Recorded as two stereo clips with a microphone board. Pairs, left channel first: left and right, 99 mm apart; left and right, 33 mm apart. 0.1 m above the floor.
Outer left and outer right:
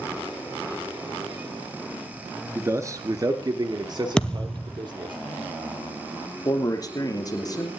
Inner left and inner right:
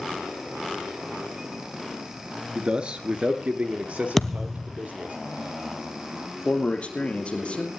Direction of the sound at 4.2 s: 10° left (ahead or behind).